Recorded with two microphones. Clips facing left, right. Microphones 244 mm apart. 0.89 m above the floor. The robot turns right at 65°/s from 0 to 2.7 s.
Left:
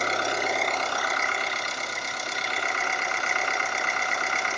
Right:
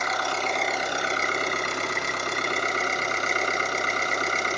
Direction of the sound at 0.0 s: 140° left.